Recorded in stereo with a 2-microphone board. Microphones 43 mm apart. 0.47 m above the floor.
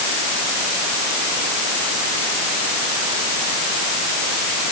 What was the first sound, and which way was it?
Only background noise.